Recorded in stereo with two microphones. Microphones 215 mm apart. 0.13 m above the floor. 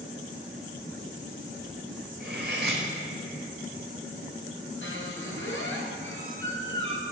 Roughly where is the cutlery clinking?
Right.